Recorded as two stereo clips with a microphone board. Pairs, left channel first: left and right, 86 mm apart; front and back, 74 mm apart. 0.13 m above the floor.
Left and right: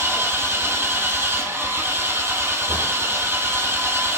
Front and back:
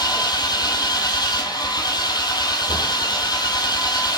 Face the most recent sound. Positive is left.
turn(degrees=-25)